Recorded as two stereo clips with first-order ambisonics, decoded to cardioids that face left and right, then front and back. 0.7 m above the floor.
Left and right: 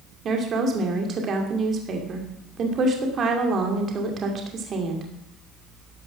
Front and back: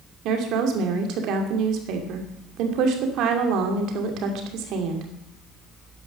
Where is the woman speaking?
150° right, 2.5 m.